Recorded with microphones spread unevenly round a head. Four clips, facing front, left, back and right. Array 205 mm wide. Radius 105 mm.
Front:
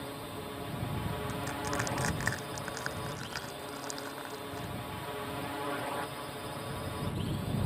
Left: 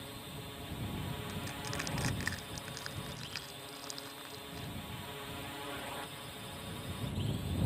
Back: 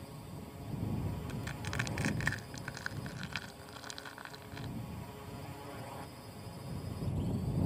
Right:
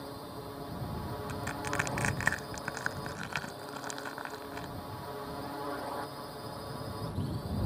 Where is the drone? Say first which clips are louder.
Right 5 dB, front 8 dB; 30° right.